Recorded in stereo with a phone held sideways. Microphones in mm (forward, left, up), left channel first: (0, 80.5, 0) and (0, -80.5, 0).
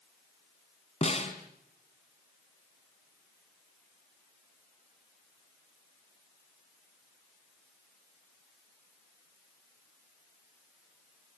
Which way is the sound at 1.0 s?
40° left (ahead or behind).